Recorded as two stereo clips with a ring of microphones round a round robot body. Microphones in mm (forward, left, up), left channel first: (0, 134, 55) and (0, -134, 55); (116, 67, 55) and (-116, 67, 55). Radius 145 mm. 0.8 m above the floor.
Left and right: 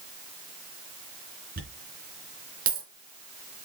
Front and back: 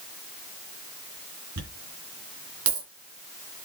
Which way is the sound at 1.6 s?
150° right.